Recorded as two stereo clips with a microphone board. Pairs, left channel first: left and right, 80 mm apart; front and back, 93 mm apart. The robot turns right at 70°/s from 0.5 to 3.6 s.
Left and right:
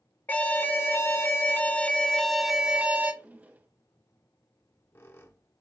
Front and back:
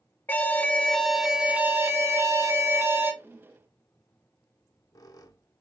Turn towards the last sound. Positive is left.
turn(degrees=35)